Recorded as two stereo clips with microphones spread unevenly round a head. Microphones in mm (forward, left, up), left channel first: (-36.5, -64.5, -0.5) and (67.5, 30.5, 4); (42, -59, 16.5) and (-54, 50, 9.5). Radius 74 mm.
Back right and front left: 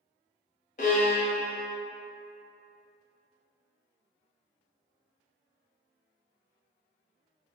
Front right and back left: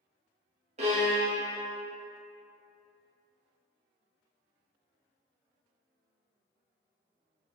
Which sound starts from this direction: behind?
A violin, at 0.8 s.